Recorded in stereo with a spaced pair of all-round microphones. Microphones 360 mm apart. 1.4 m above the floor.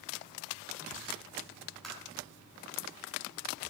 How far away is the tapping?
About 3 m.